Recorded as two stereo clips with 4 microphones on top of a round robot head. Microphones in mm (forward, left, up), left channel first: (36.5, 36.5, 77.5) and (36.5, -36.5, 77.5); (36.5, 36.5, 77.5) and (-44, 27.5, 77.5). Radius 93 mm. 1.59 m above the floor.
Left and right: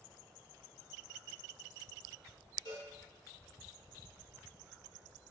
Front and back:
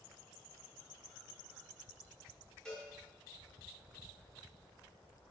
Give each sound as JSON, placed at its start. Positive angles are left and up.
{"t": 2.6, "sound": "a cowbell", "azimuth_deg": 90, "distance_m": 1.9}